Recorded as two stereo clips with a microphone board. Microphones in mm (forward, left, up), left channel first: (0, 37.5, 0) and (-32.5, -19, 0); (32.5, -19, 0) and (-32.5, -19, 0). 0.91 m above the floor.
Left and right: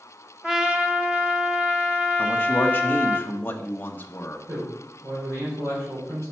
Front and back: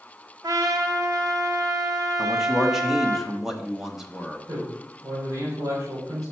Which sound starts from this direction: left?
A man speaking, at 2.2 s.